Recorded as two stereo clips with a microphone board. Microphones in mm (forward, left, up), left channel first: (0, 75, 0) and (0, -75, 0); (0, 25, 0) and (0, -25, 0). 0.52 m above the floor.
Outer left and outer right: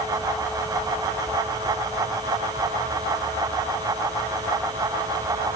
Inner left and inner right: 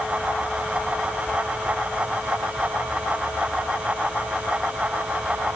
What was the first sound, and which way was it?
Only background noise.